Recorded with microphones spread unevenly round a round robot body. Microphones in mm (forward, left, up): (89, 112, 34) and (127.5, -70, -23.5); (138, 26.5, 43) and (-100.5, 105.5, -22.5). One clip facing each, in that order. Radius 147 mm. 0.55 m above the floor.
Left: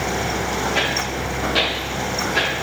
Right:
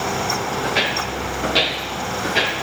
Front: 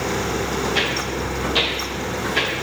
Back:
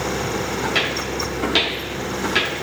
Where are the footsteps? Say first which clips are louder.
Even, front 1 dB; 165° right, 6 m; by 2.6 s 170° right, 5 m.